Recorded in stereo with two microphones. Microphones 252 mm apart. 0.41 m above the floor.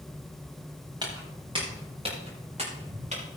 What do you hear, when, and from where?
1.0 s footsteps: 15° right (ahead or behind), 5 m; by 3.2 s 25° right (ahead or behind), 7.5 m